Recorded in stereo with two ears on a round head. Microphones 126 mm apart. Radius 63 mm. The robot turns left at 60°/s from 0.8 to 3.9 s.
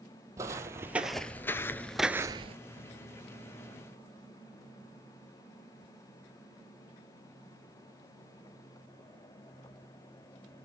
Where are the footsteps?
20° right (ahead or behind), 1.3 m; by 2.5 s 45° right (ahead or behind), 0.7 m.